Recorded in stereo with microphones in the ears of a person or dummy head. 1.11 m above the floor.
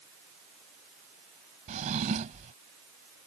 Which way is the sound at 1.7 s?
40° right (ahead or behind).